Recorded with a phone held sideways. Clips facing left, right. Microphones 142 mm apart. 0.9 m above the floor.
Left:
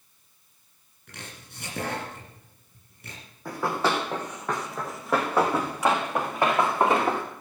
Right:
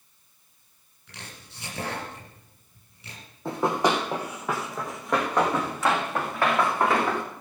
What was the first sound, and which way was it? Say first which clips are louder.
Chopping: left 1 dB; 50° left (ahead or behind).